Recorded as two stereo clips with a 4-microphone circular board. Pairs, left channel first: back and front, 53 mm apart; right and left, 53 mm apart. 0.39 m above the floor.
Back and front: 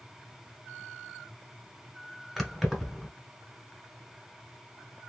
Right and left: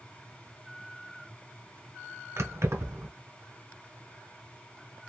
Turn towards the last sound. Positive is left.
turn(degrees=90)